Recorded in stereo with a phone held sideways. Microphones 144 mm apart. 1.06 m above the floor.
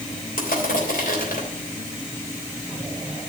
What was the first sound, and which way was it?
Crushing, 85° left.